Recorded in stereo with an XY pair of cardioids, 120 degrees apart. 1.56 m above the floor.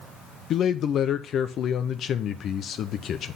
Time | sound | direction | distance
0.5 | a man speaking | 55° left | 0.7 m